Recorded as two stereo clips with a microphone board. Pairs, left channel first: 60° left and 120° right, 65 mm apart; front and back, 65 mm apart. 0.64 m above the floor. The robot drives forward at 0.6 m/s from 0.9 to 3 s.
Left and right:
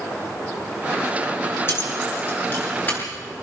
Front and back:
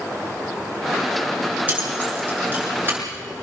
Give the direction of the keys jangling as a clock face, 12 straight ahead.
8 o'clock.